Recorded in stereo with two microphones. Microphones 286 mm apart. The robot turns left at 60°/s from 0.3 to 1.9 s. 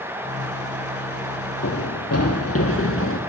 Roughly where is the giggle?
No giggle in this recording.